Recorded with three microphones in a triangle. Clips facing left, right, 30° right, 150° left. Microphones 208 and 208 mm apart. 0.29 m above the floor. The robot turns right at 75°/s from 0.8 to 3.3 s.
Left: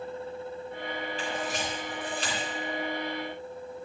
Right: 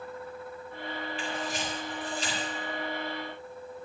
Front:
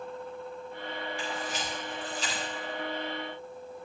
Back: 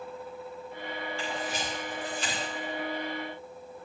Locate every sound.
1.2 s a camera shutter: 45° left, 9 m; by 2.4 s 135° left, 9 m